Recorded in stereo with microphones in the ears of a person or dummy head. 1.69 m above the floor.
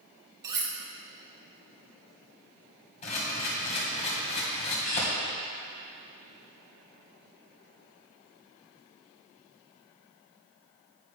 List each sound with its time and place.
0.4 s cutlery clinking: 20° right (ahead or behind), 0.8 m
3.0 s a camera shutter: 35° left (ahead or behind), 1.8 m